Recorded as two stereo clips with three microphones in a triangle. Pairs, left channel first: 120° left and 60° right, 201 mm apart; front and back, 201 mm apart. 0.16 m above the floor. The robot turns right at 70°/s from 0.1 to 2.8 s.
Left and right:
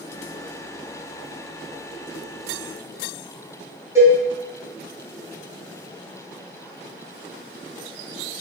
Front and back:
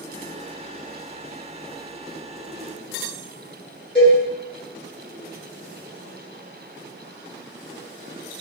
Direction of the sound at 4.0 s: 15° left.